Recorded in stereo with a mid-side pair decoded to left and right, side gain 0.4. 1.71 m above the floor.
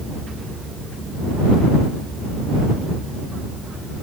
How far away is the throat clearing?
No throat clearing in this recording.